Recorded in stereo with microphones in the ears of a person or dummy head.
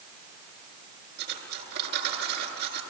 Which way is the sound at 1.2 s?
60° right (ahead or behind).